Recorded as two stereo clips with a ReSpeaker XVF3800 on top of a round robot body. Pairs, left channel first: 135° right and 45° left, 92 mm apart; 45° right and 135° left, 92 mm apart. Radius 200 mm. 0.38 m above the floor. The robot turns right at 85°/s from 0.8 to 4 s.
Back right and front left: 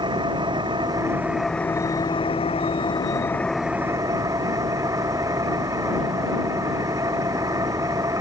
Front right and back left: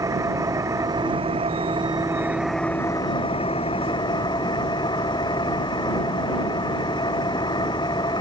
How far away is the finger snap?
I don't hear a finger snap.